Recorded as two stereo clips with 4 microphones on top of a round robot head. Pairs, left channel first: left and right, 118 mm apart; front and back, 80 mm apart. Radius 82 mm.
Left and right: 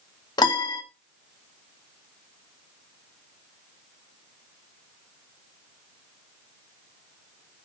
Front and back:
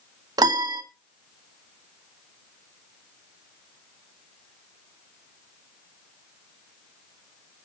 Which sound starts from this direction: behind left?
A piano, at 0.4 s.